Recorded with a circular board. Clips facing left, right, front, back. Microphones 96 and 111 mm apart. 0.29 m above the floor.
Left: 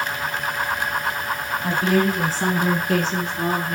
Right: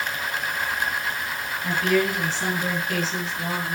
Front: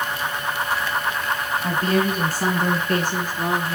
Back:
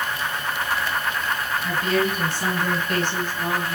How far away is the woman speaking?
About 1.7 m.